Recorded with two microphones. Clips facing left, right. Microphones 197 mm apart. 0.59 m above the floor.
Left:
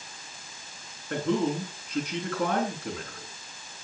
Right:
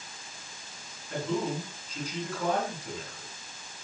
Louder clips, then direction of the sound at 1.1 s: Left 4 dB; 60° left (ahead or behind).